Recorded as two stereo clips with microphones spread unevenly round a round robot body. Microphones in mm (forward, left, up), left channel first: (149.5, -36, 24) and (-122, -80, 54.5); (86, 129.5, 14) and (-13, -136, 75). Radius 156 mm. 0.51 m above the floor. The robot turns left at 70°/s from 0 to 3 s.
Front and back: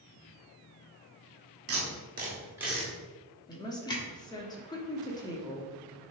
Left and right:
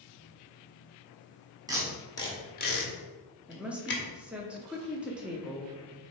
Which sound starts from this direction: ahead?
A woman speaking, at 3.5 s.